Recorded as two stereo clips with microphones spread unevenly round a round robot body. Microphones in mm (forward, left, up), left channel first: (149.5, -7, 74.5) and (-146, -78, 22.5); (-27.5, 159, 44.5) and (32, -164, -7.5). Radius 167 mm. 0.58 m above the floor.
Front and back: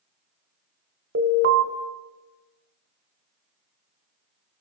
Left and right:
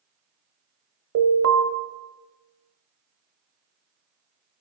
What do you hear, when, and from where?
1.1 s an alarm: 120° right, 1.3 m